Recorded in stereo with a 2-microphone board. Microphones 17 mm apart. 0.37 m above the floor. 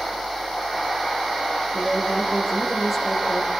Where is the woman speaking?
Centre (ahead or behind), 8.5 m.